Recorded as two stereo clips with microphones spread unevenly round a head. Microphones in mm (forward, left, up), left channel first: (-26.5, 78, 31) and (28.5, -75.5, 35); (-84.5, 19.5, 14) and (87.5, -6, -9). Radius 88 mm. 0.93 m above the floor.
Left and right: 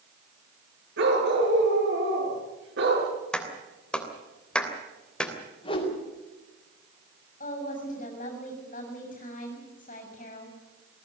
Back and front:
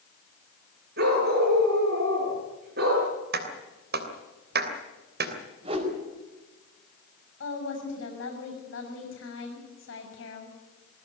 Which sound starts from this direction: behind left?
A woman speaking, at 7.4 s.